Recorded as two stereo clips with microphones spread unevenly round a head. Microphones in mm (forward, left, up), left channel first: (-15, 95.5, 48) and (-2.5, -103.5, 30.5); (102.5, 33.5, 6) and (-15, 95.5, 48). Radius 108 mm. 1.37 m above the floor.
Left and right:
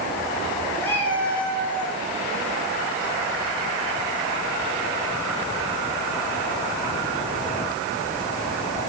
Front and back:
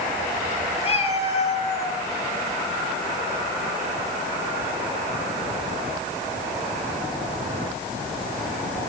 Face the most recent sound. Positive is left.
turn(degrees=10)